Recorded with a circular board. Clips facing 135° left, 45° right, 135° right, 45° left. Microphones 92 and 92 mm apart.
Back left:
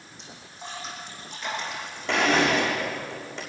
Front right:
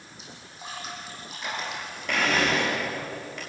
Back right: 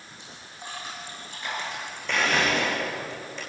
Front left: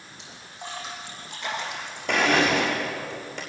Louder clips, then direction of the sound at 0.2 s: Back left 2 dB, front left 3 dB; 40° left.